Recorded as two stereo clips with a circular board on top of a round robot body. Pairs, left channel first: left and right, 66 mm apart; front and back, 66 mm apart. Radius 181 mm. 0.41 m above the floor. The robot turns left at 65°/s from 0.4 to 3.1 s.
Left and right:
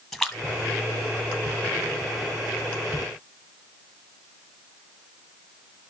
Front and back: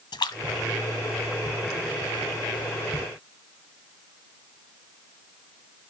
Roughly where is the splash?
Ahead.